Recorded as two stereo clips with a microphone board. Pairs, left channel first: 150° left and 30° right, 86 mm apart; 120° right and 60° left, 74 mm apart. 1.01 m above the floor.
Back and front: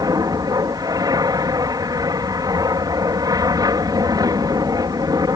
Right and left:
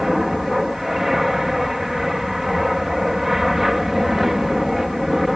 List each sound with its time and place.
0.0 s an aircraft: 25° right